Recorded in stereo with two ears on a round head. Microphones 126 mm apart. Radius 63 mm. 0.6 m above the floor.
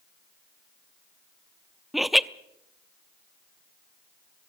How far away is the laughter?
About 0.6 m.